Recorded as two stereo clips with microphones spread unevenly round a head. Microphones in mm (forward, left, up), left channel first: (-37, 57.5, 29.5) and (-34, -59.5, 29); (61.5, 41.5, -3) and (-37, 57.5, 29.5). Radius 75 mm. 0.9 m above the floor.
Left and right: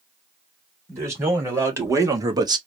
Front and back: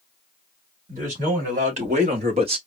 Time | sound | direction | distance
0.9 | a man speaking | 160° right | 3 m